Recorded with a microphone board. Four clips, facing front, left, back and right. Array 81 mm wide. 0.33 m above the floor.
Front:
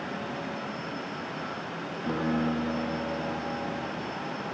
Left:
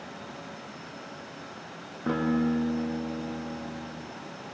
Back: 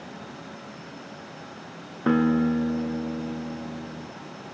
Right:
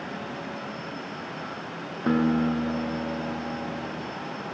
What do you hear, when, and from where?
2.1 s a guitar: 165° right, 3.5 m